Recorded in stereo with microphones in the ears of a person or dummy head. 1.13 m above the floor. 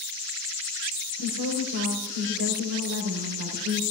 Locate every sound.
1.2 s a woman speaking: 65° right (ahead or behind), 4.5 m